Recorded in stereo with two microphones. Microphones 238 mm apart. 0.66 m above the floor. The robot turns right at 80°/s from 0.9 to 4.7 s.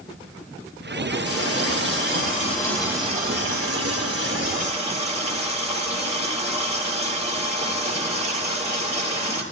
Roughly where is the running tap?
Ahead left.